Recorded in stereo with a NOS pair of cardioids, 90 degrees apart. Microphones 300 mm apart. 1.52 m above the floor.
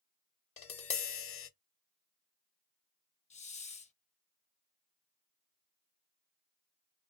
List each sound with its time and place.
0.6 s tapping: 50° left, 0.7 m
3.3 s a hiss: 25° left, 0.5 m